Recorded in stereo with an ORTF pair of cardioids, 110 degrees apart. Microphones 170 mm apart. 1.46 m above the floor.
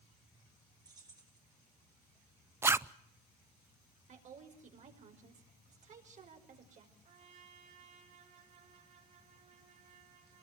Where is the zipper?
15° right, 0.5 m.